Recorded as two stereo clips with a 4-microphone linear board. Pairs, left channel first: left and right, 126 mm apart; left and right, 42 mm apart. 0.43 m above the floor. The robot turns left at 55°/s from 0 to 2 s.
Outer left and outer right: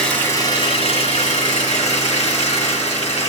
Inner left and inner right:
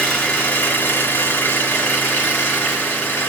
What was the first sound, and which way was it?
An engine running, 175° left.